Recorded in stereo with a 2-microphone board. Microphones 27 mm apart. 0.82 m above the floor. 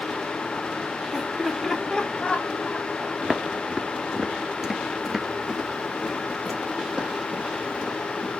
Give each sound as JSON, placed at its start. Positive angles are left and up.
{"t": 1.1, "sound": "laughter", "side_deg": -10, "distance_m": 1.9}
{"t": 3.2, "sound": "footsteps", "side_deg": -20, "distance_m": 0.8}